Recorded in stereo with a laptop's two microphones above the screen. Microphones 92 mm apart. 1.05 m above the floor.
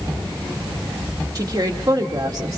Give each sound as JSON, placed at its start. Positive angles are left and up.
{"t": 1.4, "sound": "a woman speaking", "side_deg": -45, "distance_m": 1.8}